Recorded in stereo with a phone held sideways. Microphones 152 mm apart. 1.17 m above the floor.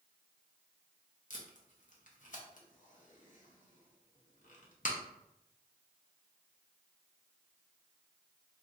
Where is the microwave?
I don't hear a microwave.